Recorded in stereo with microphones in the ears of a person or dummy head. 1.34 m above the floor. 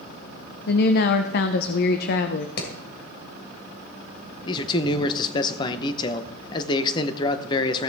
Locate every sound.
0.7 s a woman speaking: 65° left (ahead or behind), 0.7 m
2.6 s hammering: 65° left (ahead or behind), 2.5 m
4.5 s a man speaking: 30° left (ahead or behind), 0.8 m